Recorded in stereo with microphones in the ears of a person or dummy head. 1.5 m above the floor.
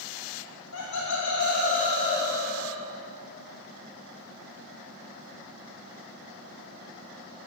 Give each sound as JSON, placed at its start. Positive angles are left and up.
{"t": 0.7, "sound": "laughter", "side_deg": 75, "distance_m": 0.9}